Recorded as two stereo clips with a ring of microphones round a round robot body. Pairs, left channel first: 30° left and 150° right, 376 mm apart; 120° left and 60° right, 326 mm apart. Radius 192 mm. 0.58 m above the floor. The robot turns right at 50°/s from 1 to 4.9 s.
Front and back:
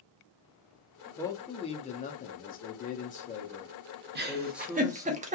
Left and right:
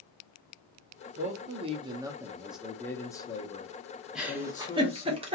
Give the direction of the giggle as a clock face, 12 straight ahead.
5 o'clock.